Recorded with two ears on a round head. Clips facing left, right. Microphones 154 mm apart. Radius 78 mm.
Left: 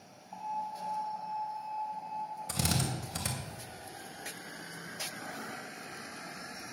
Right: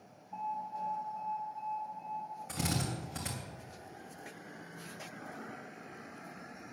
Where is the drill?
40° left (ahead or behind), 2.5 m.